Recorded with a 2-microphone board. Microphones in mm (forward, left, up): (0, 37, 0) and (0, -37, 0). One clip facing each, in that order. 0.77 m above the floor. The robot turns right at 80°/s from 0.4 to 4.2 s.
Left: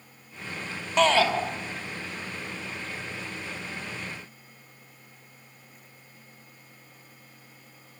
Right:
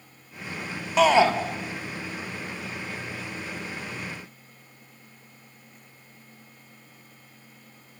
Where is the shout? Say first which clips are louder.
Right 3 dB; 5° right (ahead or behind), 1.9 m; by 1.3 s 25° right (ahead or behind), 1.9 m.